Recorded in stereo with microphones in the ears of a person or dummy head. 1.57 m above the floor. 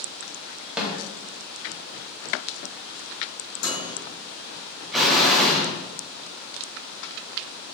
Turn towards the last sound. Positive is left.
turn(degrees=0)  # may be behind; listen again after turning